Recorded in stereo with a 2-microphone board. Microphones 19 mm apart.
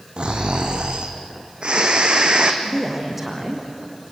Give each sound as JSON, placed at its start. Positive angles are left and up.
{"t": 0.2, "sound": "snoring", "side_deg": -55, "distance_m": 2.5}
{"t": 2.6, "sound": "a woman speaking", "side_deg": -15, "distance_m": 5.0}